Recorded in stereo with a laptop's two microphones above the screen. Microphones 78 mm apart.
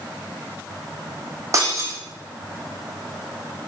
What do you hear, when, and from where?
1.5 s breaking glass: 40° right (ahead or behind), 4.5 m